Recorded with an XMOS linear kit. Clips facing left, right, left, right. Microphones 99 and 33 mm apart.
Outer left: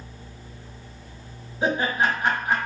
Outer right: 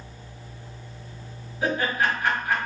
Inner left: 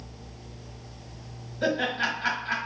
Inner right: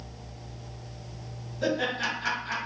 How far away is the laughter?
About 1.5 m.